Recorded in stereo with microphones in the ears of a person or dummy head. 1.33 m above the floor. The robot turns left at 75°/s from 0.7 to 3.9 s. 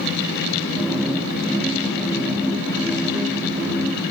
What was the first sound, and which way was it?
Only background noise.